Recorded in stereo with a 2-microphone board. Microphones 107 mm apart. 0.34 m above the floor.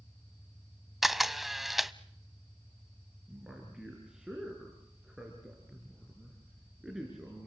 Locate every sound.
0.0 s an engine running: 15° left (ahead or behind), 6.5 m
1.0 s a camera shutter: centre (ahead or behind), 0.6 m
3.3 s a man speaking: 5° right (ahead or behind), 4.5 m